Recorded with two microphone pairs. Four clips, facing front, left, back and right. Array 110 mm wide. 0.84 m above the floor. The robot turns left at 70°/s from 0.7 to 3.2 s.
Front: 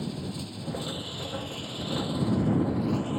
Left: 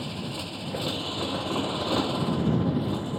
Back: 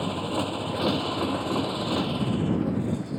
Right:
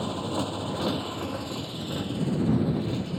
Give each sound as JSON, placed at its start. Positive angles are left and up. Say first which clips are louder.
{"t": 0.0, "sound": "a motorcycle", "louder": "right 5 dB, back 7 dB", "azimuth_deg": -150}